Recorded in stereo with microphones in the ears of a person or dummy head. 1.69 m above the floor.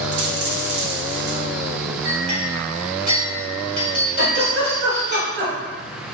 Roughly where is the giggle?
Right.